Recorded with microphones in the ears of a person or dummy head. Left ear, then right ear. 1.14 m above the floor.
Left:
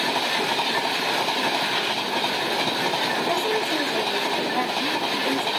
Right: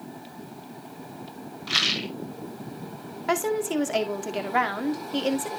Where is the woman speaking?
55° right (ahead or behind), 2 m.